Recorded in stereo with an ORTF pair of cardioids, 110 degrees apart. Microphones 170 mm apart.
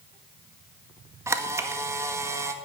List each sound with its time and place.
1.3 s a camera shutter: 15° right, 1.7 m